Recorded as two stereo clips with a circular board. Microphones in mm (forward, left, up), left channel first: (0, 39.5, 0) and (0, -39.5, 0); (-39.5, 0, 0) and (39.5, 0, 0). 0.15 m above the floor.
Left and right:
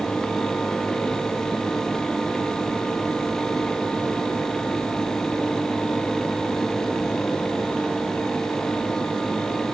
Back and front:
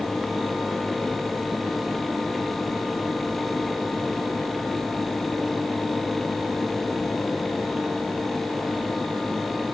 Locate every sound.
Only background noise.